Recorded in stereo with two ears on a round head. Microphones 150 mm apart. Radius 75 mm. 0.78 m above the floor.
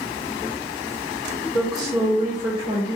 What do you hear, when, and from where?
1.5 s a woman speaking: centre (ahead or behind), 1.7 m; by 3.0 s 25° right (ahead or behind), 1.8 m